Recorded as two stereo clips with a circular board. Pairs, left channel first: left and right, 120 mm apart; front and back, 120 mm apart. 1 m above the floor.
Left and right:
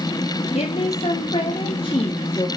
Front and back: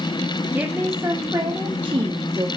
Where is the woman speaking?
105° left, 1.2 m; by 2.5 s 135° left, 2 m.